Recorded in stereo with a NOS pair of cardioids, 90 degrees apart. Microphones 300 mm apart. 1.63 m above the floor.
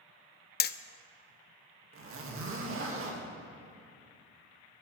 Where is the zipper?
50° right, 2 m.